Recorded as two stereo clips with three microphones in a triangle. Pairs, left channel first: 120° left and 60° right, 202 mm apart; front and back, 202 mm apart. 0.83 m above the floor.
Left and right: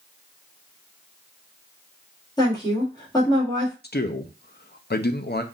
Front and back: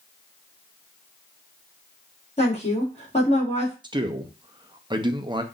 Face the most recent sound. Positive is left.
turn(degrees=120)